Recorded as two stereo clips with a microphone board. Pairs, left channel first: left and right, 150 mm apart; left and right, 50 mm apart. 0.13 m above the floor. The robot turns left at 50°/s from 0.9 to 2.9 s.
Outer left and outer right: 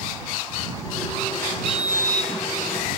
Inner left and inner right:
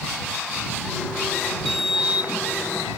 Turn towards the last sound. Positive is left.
turn(degrees=-60)